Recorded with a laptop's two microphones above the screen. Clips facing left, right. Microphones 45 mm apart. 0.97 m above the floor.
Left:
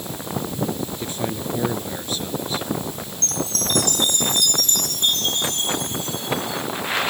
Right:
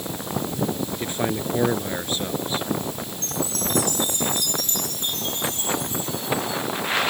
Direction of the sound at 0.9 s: 30° right (ahead or behind).